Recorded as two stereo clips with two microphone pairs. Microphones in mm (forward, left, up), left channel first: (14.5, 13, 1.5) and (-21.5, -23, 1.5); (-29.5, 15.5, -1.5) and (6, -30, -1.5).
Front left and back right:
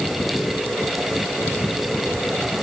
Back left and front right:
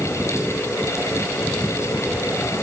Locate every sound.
Only background noise.